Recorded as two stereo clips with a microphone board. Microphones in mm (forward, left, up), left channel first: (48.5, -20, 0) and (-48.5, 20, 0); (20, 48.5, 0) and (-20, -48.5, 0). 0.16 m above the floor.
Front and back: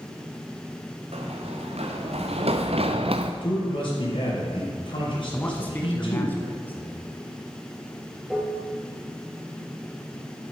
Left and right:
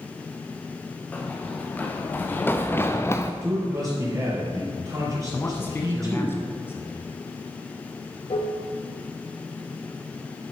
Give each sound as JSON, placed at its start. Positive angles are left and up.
{"t": 1.1, "sound": "running footsteps", "azimuth_deg": 145, "distance_m": 2.0}
{"t": 3.4, "sound": "a man speaking", "azimuth_deg": -55, "distance_m": 4.0}
{"t": 5.3, "sound": "a man speaking", "azimuth_deg": 30, "distance_m": 1.1}
{"t": 8.3, "sound": "dishes clattering", "azimuth_deg": 75, "distance_m": 2.0}